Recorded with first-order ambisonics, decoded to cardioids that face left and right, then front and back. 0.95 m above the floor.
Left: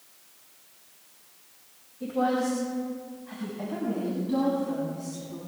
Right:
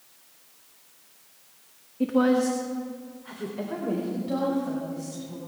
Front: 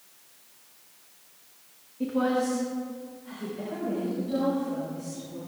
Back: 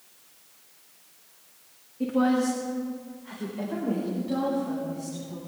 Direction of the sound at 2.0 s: 95° right.